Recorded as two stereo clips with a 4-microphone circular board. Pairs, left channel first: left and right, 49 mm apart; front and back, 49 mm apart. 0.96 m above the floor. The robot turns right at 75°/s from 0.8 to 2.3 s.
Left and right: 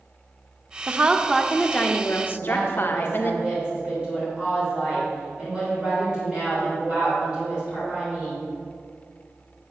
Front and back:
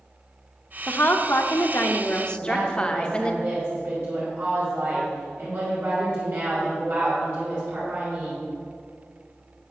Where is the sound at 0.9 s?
45° right, 0.7 m; by 3.4 s 65° left, 0.7 m.